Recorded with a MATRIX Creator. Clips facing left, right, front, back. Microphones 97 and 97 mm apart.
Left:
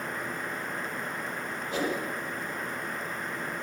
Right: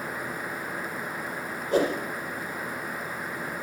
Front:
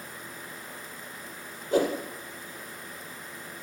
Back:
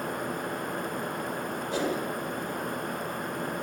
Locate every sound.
1.7 s a whoosh: 40° right, 5 m